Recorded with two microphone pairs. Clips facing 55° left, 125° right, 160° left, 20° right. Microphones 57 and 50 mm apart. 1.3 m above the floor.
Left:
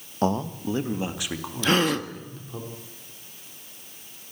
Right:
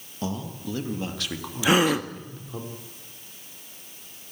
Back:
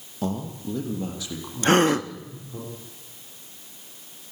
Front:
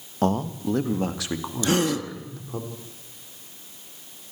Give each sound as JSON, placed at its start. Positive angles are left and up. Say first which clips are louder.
{"t": 0.2, "sound": "a man speaking", "louder": "left 7 dB, front 6 dB", "azimuth_deg": 15, "distance_m": 1.4}
{"t": 1.6, "sound": "a gasp", "louder": "right 2 dB, back 5 dB", "azimuth_deg": 160, "distance_m": 0.8}